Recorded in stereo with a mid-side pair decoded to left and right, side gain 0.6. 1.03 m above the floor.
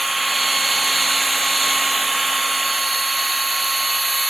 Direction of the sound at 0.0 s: 10° right.